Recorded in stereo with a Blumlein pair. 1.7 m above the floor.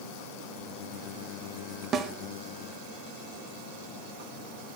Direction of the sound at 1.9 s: 25° right.